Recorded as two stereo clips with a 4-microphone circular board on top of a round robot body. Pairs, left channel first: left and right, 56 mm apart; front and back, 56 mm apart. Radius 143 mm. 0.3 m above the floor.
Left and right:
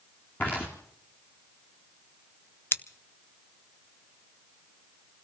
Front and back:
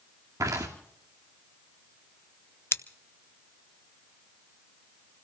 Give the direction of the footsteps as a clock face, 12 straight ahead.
7 o'clock.